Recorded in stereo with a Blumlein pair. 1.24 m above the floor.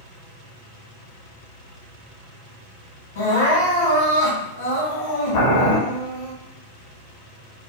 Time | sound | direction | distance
3.1 | crying | 55° left | 1.4 m
5.3 | boiling | 55° left | 1.5 m